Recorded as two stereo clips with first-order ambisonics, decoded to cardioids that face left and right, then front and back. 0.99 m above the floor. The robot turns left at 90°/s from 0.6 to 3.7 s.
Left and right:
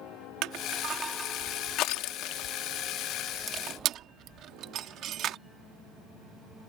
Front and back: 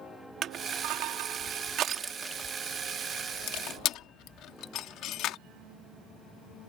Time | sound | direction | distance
0.4 | crushing | 125° right | ?